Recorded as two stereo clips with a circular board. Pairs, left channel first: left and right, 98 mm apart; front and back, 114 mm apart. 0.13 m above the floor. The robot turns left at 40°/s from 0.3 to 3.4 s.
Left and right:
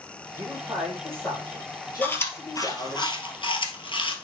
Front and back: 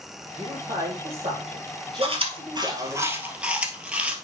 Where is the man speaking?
155° right, 5.5 m; by 3.0 s 95° left, 5.5 m.